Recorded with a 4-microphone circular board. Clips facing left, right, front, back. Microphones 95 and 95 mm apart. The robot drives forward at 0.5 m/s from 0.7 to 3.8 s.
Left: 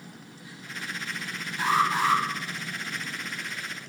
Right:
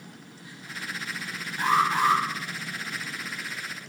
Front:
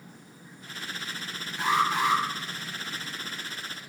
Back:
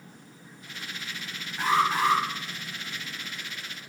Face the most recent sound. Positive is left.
turn(degrees=-135)